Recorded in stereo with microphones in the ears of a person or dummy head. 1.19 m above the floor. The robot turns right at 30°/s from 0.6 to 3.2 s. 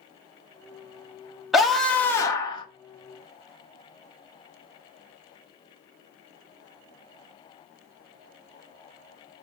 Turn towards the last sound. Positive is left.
turn(degrees=45)